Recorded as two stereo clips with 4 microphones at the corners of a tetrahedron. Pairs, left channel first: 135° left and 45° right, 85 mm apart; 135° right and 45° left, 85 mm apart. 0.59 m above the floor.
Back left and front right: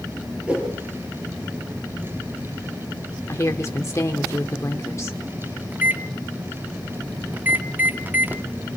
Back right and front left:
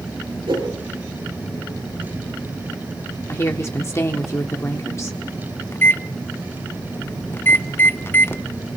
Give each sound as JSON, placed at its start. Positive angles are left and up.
{"t": 0.5, "sound": "a whoosh", "azimuth_deg": 30, "distance_m": 8.0}
{"t": 3.3, "sound": "a woman speaking", "azimuth_deg": 175, "distance_m": 1.3}
{"t": 5.7, "sound": "a microwave", "azimuth_deg": -95, "distance_m": 0.5}